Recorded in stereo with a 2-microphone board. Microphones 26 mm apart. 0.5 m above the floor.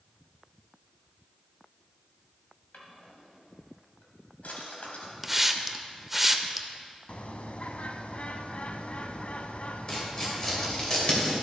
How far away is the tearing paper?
About 2 m.